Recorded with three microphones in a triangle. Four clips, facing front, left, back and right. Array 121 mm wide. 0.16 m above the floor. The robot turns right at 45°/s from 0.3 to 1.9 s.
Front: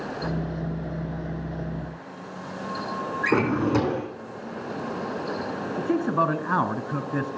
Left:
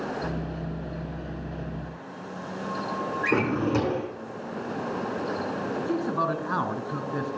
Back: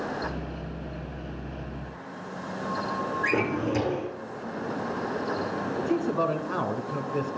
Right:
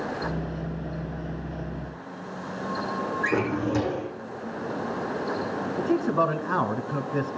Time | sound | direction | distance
3.2 | a drawer | 25° left | 4 m
5.8 | a man speaking | 15° right | 1.6 m